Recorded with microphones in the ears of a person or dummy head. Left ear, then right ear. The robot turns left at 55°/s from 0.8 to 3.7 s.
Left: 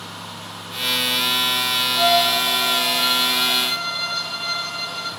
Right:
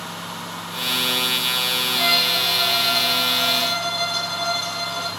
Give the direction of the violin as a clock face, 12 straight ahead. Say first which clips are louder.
Left 2 dB; 12 o'clock.